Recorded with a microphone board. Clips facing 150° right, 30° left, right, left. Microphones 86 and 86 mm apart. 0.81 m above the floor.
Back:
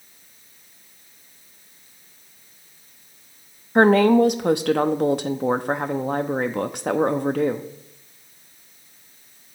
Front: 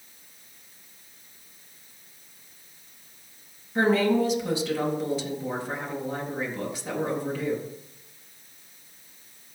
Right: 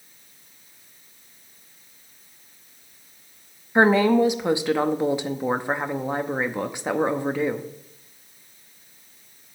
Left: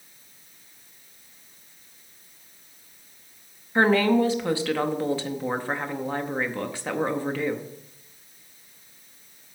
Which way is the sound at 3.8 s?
160° right.